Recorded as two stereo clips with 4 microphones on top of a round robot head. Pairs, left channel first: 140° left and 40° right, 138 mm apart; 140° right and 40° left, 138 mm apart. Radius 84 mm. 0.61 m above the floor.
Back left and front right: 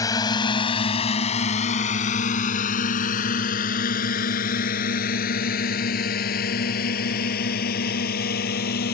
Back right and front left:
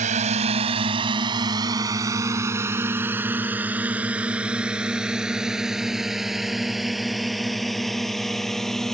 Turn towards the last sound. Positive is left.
turn(degrees=130)